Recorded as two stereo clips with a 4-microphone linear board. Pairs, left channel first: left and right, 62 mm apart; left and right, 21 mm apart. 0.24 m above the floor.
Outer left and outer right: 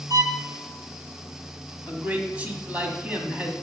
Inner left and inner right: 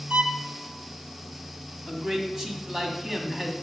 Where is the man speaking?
25° right (ahead or behind), 1.4 m.